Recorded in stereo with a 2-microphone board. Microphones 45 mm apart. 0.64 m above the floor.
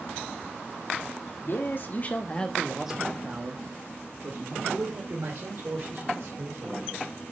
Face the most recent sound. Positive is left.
turn(degrees=-75)  # may be behind; listen again after turning